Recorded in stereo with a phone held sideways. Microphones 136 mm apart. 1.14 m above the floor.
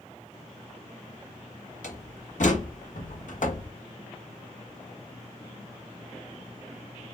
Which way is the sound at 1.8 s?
70° left (ahead or behind).